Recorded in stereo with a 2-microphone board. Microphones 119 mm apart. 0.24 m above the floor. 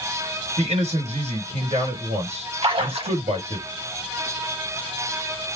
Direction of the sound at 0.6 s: 70° right (ahead or behind).